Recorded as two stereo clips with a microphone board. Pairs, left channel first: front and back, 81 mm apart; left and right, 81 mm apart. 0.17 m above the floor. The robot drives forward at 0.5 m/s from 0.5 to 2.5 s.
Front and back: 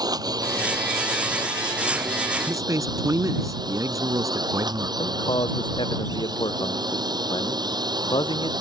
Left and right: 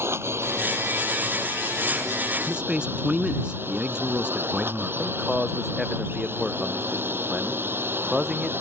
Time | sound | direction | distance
0.0 | a drone | 145° right | ?
2.5 | a man speaking | 165° right | ?
5.0 | a man speaking | 5° right | ?